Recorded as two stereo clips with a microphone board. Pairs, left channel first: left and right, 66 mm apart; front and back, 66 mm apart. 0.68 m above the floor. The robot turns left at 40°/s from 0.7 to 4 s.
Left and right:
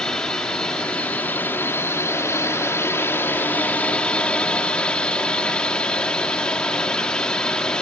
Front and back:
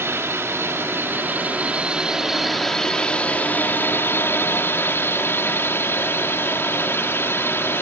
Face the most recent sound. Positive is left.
turn(degrees=20)